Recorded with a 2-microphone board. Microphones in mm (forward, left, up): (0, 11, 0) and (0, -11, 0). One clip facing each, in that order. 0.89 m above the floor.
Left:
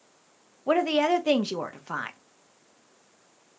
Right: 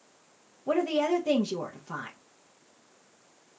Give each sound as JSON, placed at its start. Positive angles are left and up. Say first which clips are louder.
{"t": 0.7, "sound": "a woman speaking", "louder": "left 3 dB", "side_deg": 50, "distance_m": 0.5}